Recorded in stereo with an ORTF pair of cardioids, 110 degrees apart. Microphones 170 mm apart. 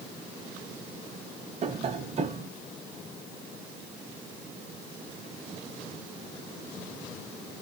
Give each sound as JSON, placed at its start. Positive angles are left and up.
{"t": 1.6, "sound": "tapping", "azimuth_deg": -40, "distance_m": 0.8}